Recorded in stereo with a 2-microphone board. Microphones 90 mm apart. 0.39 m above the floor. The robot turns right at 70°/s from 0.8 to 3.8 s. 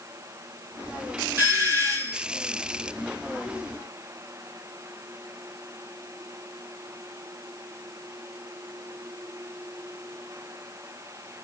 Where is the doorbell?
120° right, 2 m; by 2.2 s 60° right, 2 m.